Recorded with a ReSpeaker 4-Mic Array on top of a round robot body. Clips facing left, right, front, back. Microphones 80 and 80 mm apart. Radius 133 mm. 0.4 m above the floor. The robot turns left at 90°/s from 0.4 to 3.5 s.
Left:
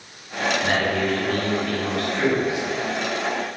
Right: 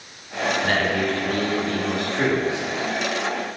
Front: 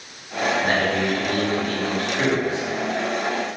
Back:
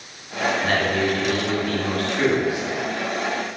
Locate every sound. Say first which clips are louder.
0.6 s a man speaking: right 1 dB, even; 55° left, 1.3 m; by 2.8 s 135° right, 1.3 m